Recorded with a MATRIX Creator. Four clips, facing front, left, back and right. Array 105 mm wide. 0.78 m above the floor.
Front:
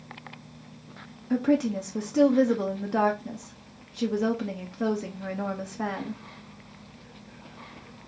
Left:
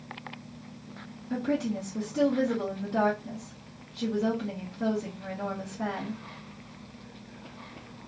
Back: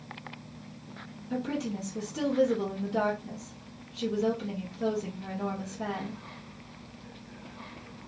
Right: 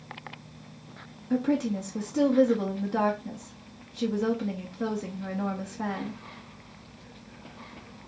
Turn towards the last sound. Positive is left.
turn(degrees=-15)